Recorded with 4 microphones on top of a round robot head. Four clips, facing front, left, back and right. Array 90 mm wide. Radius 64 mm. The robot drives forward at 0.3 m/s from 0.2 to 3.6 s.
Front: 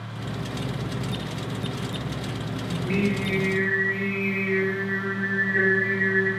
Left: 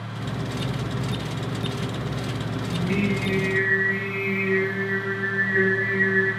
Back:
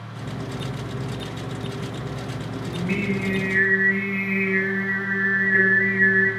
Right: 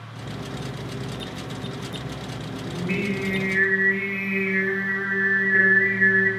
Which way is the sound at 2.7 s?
140° right.